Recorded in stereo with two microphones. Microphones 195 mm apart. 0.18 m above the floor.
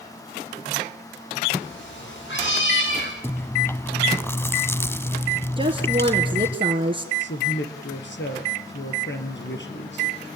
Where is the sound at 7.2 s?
70° left (ahead or behind), 4.5 m.